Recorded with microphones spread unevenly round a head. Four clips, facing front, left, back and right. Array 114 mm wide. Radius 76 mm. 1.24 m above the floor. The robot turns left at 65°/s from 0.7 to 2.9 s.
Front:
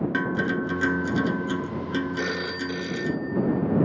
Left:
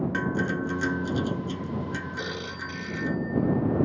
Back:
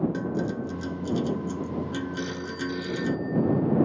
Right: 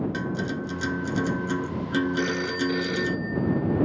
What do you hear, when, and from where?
0.1 s a guitar: 10° left; by 3.2 s 130° right
2.2 s a phone ringing: 15° right; by 3.9 s 65° right